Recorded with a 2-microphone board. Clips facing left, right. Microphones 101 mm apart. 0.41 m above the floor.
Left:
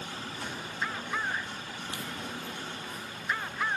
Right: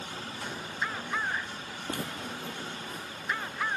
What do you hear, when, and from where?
1.9 s footsteps: 50° right (ahead or behind), 0.6 m; by 3.5 s 55° right (ahead or behind), 2.5 m